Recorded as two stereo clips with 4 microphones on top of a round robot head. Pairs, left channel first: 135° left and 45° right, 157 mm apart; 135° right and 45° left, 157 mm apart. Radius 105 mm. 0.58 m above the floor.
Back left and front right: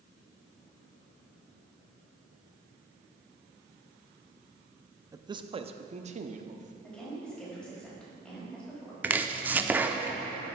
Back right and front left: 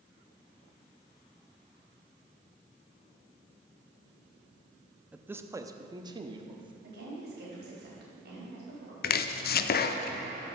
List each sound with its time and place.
5.1 s a man speaking: 25° right, 0.6 m; by 6.7 s 10° right, 1.3 m
6.8 s a woman speaking: 50° left, 4 m
9.0 s chopping: 125° right, 0.6 m